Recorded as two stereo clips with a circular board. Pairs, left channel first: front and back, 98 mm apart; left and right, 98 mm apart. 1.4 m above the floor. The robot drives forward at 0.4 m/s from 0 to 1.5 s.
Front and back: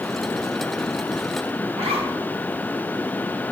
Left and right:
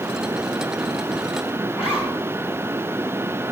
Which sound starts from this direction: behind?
A zipper, at 1.7 s.